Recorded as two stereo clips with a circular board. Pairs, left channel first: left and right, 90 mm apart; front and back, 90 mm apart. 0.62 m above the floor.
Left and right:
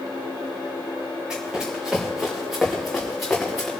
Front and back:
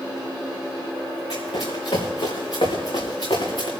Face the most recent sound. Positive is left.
turn(degrees=5)